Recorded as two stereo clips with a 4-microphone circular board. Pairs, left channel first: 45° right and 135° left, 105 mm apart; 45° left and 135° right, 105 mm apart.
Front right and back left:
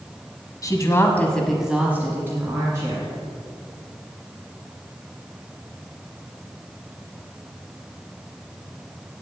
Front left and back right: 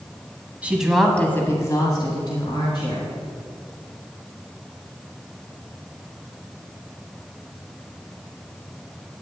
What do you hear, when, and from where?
0.6 s a woman speaking: 65° right, 1.2 m; by 3.1 s 80° left, 2 m